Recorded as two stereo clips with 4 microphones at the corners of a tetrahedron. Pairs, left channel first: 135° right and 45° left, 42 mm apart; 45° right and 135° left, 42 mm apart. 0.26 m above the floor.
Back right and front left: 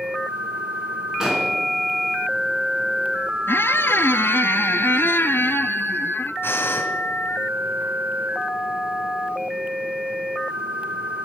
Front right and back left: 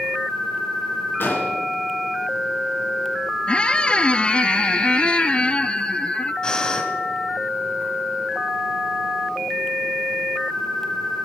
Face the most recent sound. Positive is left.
turn(degrees=-110)